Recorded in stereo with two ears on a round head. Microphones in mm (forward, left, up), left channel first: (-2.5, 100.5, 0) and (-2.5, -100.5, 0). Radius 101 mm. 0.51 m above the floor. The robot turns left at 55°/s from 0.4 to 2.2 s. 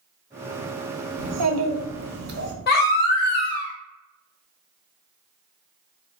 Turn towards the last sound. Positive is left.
turn(degrees=45)  # may be behind; listen again after turning